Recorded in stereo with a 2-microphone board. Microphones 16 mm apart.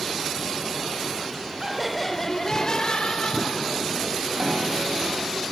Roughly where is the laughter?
Centre.